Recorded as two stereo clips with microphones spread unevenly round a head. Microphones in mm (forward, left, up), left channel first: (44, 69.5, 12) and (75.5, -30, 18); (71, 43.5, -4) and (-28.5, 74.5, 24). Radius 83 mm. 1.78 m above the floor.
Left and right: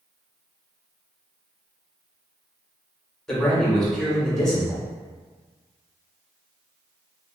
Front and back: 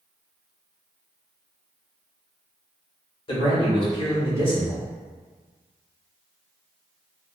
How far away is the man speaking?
About 1.2 m.